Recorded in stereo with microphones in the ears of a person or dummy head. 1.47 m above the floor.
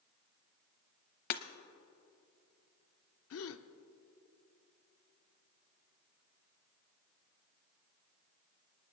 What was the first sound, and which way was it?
Breaking glass, 50° left (ahead or behind).